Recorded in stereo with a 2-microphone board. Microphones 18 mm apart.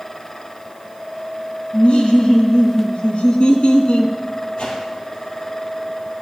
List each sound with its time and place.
1.7 s laughter: 65° left (ahead or behind), 2 m
4.6 s a whoosh: 60° left (ahead or behind), 3.5 m